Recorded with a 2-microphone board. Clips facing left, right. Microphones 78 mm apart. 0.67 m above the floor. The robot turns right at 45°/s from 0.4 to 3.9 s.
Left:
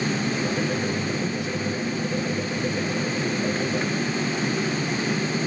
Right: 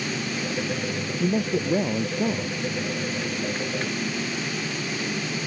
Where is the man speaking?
140° right; by 2.6 s 80° right.